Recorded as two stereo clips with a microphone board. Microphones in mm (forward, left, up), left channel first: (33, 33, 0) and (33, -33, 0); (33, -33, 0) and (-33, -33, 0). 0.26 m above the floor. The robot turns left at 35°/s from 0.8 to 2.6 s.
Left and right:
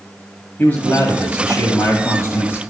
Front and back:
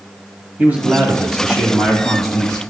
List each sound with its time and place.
0.6 s a man speaking: 130° left, 1.6 m; by 2.6 s 65° left, 1.6 m